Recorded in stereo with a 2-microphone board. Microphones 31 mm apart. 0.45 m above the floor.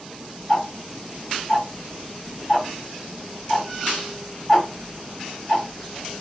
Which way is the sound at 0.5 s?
20° left (ahead or behind).